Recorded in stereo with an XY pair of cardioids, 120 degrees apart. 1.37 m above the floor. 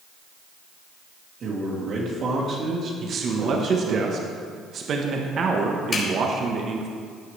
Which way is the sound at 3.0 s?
50° right.